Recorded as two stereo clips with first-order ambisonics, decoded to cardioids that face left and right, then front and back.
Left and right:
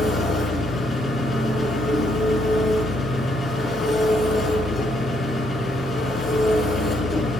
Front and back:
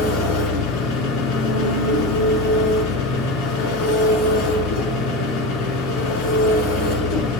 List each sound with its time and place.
0.0 s an engine running: 20° left, 6 m